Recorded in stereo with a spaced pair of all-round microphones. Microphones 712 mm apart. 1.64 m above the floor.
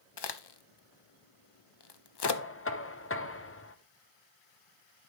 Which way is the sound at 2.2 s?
20° left (ahead or behind).